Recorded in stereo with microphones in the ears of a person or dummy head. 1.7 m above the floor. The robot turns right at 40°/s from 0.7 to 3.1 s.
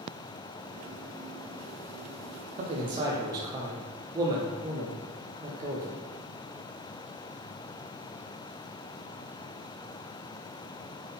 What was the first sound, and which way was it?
A man speaking, 35° right (ahead or behind).